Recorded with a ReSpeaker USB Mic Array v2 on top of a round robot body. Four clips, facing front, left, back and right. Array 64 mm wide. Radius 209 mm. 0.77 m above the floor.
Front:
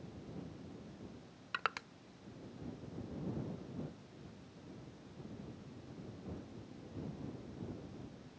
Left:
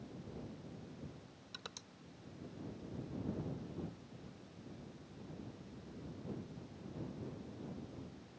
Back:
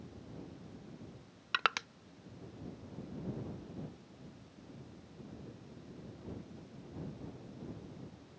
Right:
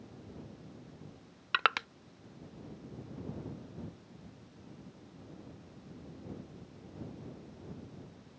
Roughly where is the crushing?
Right.